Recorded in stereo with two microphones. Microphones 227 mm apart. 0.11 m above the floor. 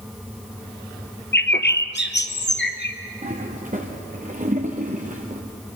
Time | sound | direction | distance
1.3 | a bird | 50° left (ahead or behind) | 1.1 m
3.2 | a toilet flushing | 35° right (ahead or behind) | 3 m